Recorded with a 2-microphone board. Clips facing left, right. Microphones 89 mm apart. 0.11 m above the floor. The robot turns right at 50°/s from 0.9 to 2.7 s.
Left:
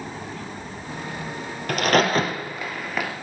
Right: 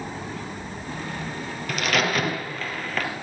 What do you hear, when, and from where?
1.7 s a crack: 50° left (ahead or behind), 2.5 m; by 3.1 s 10° left (ahead or behind), 2.5 m